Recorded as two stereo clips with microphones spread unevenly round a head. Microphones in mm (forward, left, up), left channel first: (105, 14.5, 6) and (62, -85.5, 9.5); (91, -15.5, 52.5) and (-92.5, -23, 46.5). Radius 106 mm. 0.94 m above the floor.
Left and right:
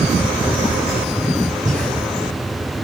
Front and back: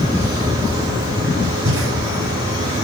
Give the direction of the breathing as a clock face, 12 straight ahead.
6 o'clock.